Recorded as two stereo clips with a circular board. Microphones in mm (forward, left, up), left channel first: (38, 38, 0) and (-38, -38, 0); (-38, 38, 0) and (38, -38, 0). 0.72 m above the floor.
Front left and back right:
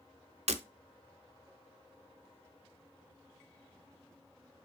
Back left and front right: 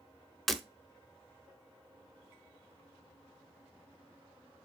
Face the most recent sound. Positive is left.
turn(degrees=-135)